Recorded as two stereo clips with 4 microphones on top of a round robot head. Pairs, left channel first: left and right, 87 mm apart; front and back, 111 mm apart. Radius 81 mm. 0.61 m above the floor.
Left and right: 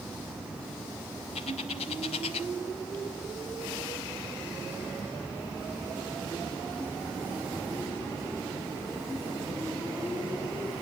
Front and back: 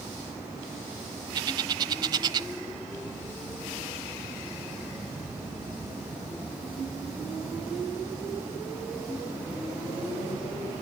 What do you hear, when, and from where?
1.4 s a bird: 130° left, 0.8 m